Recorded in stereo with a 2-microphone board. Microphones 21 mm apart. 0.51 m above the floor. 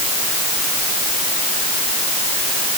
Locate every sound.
Only background noise.